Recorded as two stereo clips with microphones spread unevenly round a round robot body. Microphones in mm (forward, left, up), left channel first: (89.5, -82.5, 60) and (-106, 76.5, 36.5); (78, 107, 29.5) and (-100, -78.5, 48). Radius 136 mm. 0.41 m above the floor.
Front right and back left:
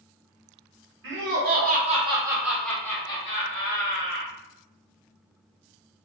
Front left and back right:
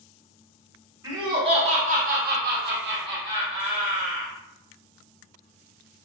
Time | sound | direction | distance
1.0 | laughter | 150° left | 1.1 m